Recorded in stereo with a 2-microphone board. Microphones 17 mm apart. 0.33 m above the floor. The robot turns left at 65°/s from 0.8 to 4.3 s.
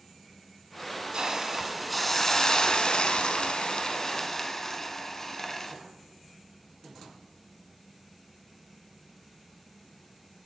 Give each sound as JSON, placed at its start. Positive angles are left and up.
{"t": 1.1, "sound": "a hiss", "azimuth_deg": -135, "distance_m": 0.7}